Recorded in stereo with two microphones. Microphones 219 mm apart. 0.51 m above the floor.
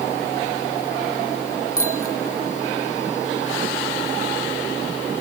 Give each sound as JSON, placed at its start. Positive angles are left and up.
{"t": 1.8, "sound": "a bicycle bell", "side_deg": 80}